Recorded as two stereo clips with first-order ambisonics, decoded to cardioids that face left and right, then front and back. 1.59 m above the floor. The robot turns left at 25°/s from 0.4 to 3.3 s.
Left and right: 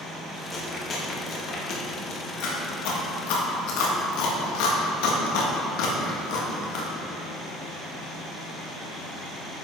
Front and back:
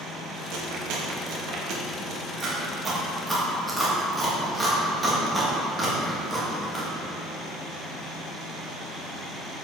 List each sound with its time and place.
0.5 s chewing: 165° left, 1.7 m; by 6.9 s 95° left, 1.7 m